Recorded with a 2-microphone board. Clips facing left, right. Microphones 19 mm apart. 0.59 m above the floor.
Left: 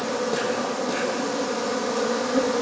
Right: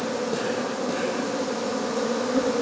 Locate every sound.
0.0 s an insect: 20° left (ahead or behind), 2.5 m